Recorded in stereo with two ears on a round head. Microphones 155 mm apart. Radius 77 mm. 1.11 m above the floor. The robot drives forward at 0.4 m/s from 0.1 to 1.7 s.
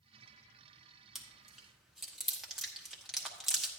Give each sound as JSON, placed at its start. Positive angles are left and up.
{"t": 1.1, "sound": "chewing", "side_deg": -5, "distance_m": 1.1}